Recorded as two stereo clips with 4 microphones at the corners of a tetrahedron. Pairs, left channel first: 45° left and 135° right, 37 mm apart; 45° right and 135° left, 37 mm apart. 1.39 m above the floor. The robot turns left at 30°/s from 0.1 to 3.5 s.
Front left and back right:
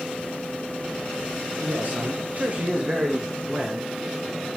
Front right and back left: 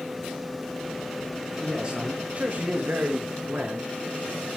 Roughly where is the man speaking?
Behind right.